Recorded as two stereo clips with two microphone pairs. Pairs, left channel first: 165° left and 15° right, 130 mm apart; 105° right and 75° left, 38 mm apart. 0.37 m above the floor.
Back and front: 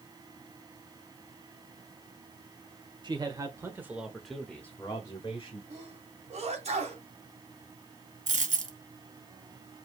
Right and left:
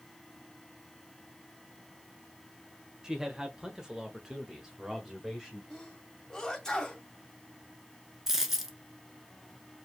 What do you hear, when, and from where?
3.0 s a man speaking: 10° left, 1.6 m; by 5.6 s 145° left, 1.7 m
5.7 s a sneeze: 35° right, 1.5 m
8.3 s a dropped coin: 5° right, 1.0 m